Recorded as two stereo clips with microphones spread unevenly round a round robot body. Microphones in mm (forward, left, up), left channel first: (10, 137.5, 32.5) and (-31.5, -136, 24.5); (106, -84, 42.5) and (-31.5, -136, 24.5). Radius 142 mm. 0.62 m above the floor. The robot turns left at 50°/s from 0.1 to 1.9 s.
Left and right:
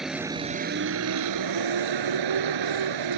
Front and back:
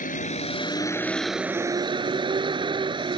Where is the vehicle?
10° right; by 3.2 s 100° right.